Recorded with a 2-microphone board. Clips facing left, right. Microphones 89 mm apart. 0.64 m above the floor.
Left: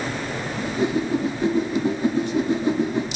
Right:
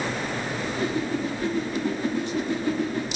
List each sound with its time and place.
0.6 s a whoosh: 20° left (ahead or behind), 0.8 m